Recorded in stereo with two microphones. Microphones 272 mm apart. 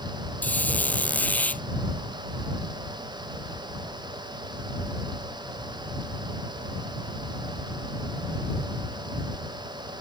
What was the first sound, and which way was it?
A squeak, 5° left (ahead or behind).